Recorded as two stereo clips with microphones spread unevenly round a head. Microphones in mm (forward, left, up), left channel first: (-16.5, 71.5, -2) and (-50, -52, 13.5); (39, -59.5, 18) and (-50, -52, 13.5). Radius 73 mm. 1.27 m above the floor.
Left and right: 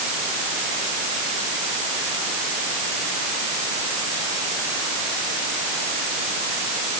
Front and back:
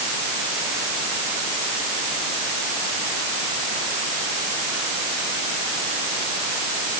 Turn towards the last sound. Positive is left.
No sound to turn to.